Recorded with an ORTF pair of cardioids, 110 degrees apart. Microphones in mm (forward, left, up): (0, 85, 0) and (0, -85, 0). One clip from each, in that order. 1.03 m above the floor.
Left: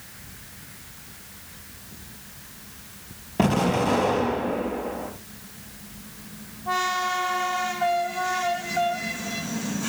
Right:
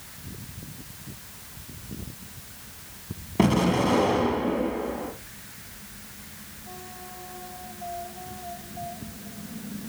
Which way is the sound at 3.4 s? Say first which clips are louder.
Left 1 dB; straight ahead.